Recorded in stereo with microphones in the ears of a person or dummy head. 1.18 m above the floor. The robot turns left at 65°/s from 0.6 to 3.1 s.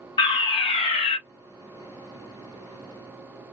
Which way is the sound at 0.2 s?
25° left (ahead or behind).